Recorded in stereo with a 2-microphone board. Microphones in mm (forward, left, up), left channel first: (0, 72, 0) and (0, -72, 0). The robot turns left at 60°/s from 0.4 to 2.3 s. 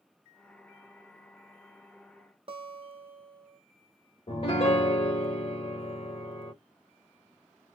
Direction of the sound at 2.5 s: 45° right (ahead or behind).